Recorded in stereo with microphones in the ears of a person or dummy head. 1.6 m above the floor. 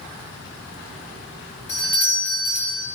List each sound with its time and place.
1.7 s a doorbell: 25° left (ahead or behind), 3 m